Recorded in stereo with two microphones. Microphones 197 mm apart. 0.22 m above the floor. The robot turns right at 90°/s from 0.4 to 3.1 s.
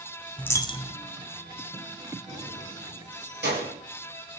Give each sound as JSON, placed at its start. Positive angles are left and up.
{"t": 0.4, "sound": "a dropped coin", "azimuth_deg": 5, "distance_m": 0.5}
{"t": 2.3, "sound": "keys jangling", "side_deg": 5, "distance_m": 3.0}